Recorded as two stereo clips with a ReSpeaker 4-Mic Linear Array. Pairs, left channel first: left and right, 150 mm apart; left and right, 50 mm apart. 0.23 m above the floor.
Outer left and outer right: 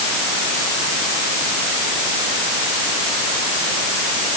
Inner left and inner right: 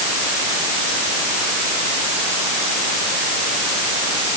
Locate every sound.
Only background noise.